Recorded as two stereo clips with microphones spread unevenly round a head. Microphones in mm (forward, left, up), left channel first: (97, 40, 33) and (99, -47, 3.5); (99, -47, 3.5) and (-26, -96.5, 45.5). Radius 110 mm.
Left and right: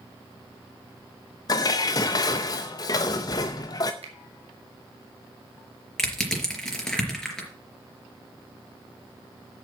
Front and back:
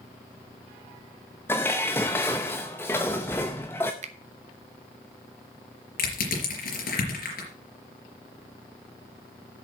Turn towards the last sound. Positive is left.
turn(degrees=15)